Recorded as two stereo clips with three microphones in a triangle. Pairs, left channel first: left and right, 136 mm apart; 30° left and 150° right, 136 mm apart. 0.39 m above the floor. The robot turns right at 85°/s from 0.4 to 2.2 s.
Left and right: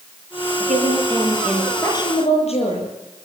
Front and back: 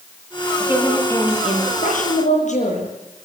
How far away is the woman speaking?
About 9.5 m.